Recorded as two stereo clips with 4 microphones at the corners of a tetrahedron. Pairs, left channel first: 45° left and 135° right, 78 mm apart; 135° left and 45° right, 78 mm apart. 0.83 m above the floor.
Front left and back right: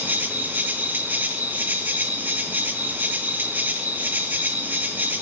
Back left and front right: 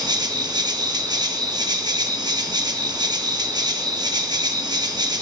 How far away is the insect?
About 0.8 m.